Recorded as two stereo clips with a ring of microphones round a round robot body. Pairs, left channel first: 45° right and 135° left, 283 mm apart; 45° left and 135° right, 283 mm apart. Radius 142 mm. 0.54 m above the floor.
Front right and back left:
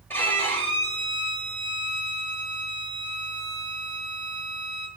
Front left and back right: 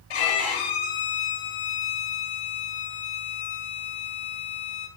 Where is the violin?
40° left, 2 m.